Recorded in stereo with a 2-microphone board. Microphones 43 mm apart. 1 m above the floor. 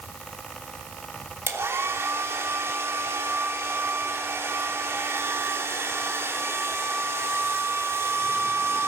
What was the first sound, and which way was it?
A hair dryer, 80° right.